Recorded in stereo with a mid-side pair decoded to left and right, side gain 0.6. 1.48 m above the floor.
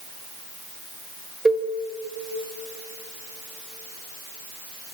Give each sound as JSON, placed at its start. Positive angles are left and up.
{"t": 1.4, "sound": "a cowbell", "azimuth_deg": -15, "distance_m": 2.0}